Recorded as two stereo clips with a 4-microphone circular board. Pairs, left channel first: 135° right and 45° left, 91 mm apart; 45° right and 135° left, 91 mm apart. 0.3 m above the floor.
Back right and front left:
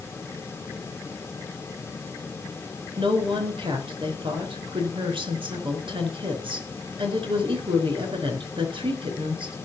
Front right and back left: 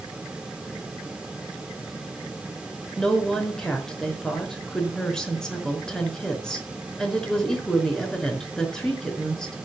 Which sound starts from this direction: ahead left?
A woman speaking, at 3.0 s.